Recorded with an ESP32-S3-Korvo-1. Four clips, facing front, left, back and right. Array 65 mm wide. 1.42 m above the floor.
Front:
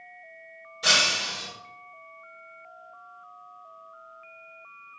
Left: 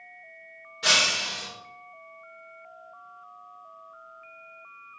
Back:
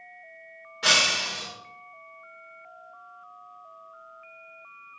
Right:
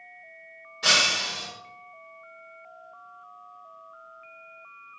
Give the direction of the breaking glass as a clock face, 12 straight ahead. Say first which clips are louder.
Right 1 dB, back 1 dB; 6 o'clock.